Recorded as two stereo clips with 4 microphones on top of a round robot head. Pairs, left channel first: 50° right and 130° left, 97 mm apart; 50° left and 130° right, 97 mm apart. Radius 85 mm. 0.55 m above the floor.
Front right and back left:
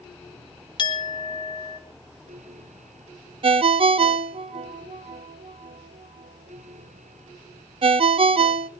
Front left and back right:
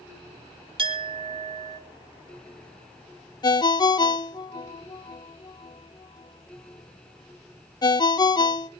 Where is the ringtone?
100° left, 0.7 m.